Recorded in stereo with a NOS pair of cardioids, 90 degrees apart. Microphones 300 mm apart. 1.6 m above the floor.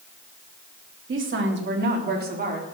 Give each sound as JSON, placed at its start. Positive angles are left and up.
{"t": 1.1, "sound": "a woman speaking", "azimuth_deg": -40, "distance_m": 3.0}